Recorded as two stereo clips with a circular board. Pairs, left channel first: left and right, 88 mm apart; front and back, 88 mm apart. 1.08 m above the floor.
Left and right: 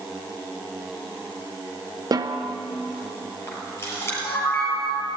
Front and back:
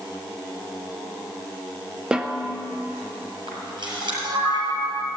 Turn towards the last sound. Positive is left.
turn(degrees=150)